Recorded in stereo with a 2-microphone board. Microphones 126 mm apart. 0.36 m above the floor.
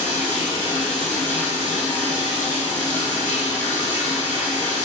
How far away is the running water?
About 2 m.